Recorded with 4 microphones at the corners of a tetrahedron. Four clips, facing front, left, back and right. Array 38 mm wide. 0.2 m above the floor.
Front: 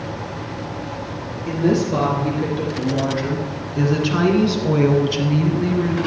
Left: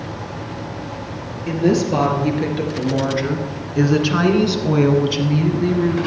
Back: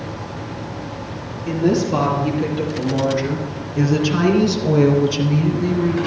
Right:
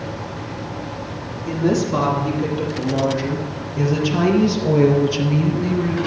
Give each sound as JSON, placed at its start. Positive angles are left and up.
{"t": 1.5, "sound": "a woman speaking", "azimuth_deg": 80, "distance_m": 4.5}